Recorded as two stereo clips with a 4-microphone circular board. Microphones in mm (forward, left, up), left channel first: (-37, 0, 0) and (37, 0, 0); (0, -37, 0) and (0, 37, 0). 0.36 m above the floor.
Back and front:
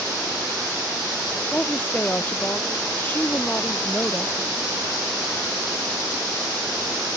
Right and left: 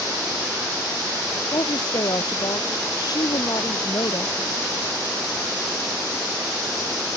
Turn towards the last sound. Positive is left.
turn(degrees=-115)